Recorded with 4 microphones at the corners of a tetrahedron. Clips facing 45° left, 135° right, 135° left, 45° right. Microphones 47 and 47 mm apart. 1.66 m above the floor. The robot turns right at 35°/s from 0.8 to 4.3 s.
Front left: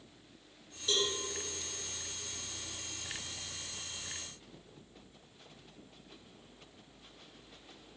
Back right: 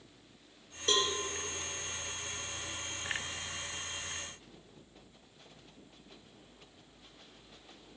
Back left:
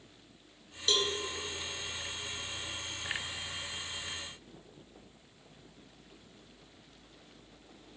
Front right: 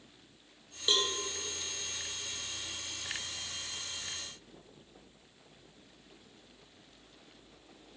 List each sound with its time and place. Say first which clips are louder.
0.9 s a cowbell: back right 3 dB, even; 115° right, 0.8 m; by 1.1 s 105° right, 0.8 m